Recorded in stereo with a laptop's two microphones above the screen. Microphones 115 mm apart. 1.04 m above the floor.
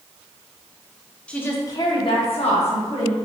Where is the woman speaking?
10° left (ahead or behind), 0.5 m; by 3.1 s 80° left, 1.0 m.